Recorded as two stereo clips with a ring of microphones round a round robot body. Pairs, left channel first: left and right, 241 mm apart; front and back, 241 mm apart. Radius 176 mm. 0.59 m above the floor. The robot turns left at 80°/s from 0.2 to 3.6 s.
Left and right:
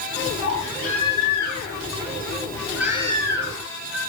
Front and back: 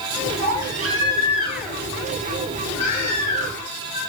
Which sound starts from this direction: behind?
A baby crying, at 0.4 s.